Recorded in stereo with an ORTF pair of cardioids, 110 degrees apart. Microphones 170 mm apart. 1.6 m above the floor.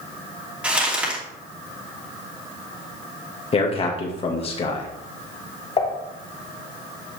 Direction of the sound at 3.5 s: 35° left.